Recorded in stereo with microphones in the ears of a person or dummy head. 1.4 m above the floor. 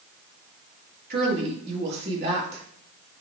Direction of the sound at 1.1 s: 65° right (ahead or behind).